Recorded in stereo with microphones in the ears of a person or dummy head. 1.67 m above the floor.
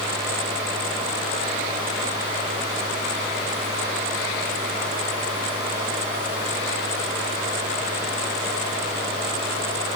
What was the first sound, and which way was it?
Only background noise.